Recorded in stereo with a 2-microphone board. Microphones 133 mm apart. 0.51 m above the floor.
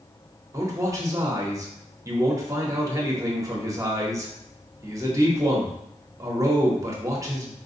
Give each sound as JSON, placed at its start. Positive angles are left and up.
{"t": 0.5, "sound": "a man speaking", "side_deg": -25, "distance_m": 0.8}